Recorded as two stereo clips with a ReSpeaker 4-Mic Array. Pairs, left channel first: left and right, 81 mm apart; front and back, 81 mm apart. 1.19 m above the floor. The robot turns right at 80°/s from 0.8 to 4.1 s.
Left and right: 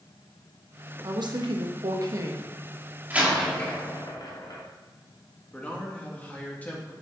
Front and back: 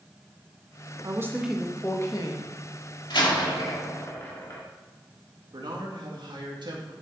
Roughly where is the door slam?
Ahead right.